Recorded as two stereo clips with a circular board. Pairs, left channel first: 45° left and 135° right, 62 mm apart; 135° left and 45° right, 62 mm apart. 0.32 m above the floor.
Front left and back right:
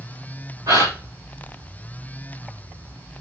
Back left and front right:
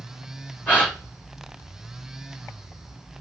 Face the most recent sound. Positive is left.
turn(degrees=-160)